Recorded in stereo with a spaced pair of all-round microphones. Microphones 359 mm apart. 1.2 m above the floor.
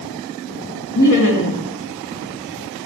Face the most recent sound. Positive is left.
turn(degrees=55)  # may be behind; listen again after turning